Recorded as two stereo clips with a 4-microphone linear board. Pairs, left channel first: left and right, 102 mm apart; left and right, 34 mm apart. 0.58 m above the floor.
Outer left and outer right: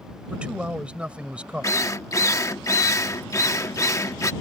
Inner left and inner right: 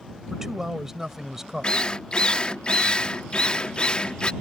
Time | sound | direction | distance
0.3 | a man speaking | 15° right (ahead or behind) | ?
1.6 | a drill | 30° left (ahead or behind) | ?